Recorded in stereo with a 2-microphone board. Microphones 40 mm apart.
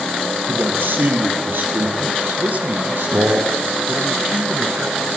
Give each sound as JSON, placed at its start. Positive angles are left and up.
{"t": 0.5, "sound": "a man speaking", "side_deg": -70, "distance_m": 6.0}
{"t": 2.4, "sound": "a man speaking", "side_deg": -50, "distance_m": 3.5}